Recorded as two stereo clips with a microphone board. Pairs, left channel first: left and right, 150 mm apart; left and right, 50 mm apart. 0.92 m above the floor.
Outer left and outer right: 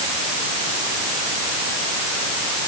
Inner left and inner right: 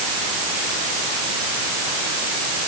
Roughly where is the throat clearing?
I don't hear throat clearing.